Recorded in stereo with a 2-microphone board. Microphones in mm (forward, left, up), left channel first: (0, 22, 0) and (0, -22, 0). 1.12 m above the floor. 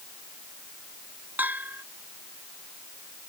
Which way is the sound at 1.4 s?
40° right (ahead or behind).